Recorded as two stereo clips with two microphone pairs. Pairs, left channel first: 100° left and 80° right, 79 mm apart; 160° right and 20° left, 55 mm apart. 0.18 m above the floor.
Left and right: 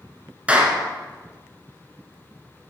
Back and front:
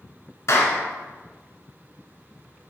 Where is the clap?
150° right, 1.4 m.